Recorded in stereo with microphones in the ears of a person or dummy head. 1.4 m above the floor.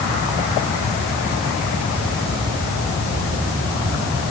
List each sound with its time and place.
Only background noise.